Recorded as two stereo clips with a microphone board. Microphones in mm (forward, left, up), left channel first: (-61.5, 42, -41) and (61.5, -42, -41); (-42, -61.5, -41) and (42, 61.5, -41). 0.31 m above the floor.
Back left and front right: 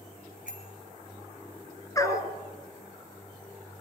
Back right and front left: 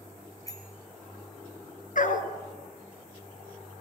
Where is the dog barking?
145° right, 1.7 m.